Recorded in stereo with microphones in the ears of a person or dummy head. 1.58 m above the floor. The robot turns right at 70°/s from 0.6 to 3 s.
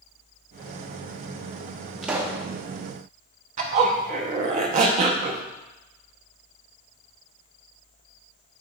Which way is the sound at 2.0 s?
175° right.